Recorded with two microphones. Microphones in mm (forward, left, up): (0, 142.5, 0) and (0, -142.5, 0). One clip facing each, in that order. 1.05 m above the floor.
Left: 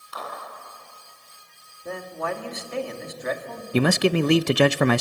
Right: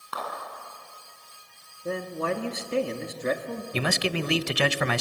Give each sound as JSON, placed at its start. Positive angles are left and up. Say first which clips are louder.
{"t": 0.1, "sound": "a clap", "louder": "right 1 dB", "side_deg": -70, "distance_m": 10.0}
{"t": 1.9, "sound": "a man speaking", "louder": "right 2 dB", "side_deg": -35, "distance_m": 1.9}
{"t": 3.7, "sound": "a man speaking", "louder": "left 9 dB", "side_deg": 60, "distance_m": 0.5}